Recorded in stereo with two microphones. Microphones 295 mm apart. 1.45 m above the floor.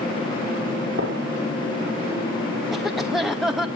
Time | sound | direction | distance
1.0 | a gunshot | 45° right (ahead or behind) | 3.5 m
2.7 | a cough | centre (ahead or behind) | 0.7 m